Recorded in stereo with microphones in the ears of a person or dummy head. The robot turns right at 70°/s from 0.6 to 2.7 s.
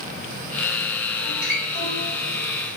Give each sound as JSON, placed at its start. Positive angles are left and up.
{"t": 1.2, "sound": "a guitar", "side_deg": -55, "distance_m": 1.5}